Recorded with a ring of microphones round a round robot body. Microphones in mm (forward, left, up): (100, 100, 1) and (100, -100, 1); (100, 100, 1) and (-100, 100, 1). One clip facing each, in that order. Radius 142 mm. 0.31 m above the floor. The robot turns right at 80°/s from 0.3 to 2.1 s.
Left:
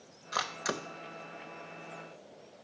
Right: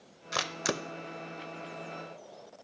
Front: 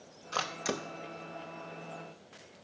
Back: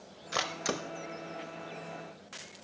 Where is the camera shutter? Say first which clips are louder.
Right 3 dB, back 1 dB; 120° right, 0.5 m; by 0.8 s 80° right, 0.5 m.